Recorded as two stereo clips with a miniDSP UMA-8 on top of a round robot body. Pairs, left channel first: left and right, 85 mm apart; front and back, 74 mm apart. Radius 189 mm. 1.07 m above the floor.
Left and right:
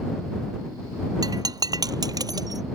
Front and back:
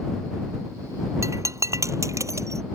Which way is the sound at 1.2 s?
135° right.